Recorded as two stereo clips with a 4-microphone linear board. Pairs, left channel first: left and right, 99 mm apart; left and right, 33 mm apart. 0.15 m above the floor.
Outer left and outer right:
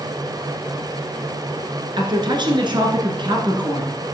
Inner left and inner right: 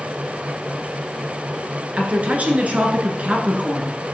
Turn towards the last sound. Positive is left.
turn(degrees=-50)  # may be behind; listen again after turning